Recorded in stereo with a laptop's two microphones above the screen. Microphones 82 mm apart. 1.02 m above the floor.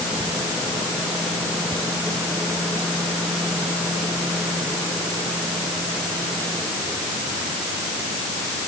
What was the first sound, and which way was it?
Only background noise.